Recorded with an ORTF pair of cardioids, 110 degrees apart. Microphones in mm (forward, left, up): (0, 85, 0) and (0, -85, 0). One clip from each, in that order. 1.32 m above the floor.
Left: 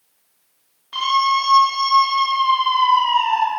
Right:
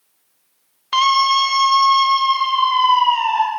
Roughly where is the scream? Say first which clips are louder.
Right 3 dB; right.